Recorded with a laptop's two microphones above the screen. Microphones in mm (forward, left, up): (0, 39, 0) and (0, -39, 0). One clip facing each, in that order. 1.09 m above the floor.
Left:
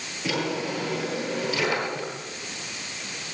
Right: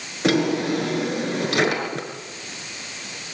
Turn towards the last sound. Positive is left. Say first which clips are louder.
# right 8 dB
turn(degrees=-75)  # may be behind; listen again after turning